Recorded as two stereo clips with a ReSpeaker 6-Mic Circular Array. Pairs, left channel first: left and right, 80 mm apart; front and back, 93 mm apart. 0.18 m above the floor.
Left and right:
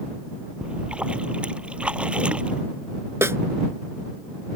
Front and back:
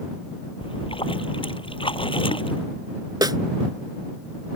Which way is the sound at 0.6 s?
15° right.